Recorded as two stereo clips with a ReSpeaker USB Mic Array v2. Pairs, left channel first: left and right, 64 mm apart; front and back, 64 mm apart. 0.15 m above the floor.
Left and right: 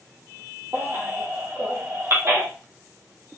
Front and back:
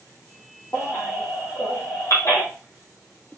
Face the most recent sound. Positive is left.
turn(degrees=-40)